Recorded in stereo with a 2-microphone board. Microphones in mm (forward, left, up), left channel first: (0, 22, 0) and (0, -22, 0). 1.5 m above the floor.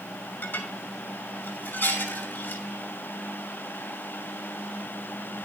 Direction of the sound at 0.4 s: 50° left (ahead or behind).